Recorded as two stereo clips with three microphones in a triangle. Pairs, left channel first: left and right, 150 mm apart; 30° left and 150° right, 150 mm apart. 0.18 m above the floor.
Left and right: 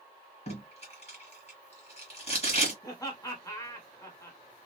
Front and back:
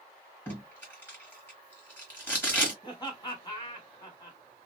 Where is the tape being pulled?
100° left, 1.9 m.